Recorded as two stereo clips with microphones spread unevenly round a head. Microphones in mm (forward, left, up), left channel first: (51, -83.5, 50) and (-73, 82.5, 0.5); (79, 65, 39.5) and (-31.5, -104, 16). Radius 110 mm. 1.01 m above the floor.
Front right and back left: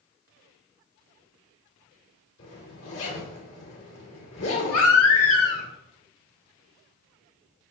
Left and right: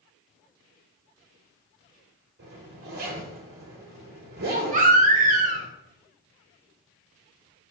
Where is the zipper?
85° right, 2.5 m.